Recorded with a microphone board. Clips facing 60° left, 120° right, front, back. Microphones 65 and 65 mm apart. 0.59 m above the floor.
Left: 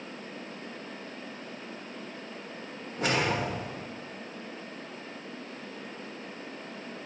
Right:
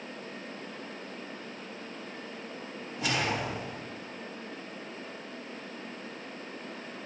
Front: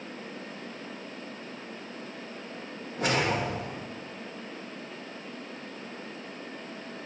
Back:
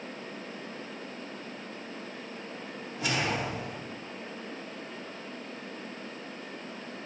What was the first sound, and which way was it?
A whoosh, 30° left.